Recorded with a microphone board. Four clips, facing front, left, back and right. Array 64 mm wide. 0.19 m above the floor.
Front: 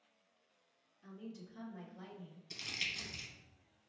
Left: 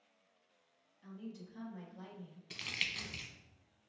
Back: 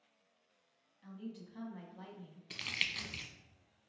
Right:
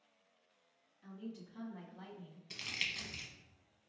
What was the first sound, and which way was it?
A woman speaking, 175° left.